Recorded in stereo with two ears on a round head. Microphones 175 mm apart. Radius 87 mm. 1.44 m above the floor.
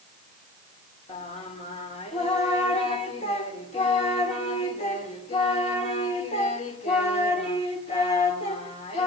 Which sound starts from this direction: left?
Singing, at 1.1 s.